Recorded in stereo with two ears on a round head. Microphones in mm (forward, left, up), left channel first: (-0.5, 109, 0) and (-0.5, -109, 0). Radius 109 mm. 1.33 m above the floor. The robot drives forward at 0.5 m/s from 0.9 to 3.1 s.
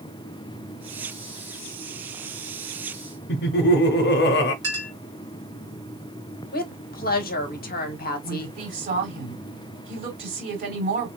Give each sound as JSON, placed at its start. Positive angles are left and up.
{"t": 3.3, "sound": "laughter", "side_deg": 45, "distance_m": 0.5}
{"t": 4.6, "sound": "a clink", "side_deg": -15, "distance_m": 1.8}
{"t": 6.5, "sound": "a woman speaking", "side_deg": 40, "distance_m": 0.9}
{"t": 8.2, "sound": "a woman speaking", "side_deg": -45, "distance_m": 3.0}